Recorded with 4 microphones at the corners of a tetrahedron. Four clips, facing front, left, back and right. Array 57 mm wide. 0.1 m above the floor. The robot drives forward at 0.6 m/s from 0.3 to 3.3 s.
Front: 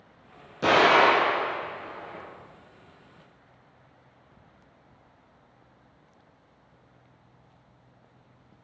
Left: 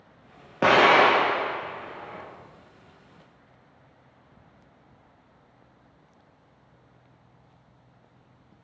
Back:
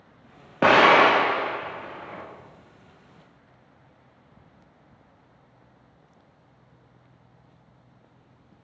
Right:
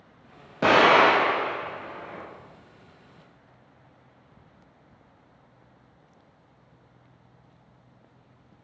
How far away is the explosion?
About 1.2 m.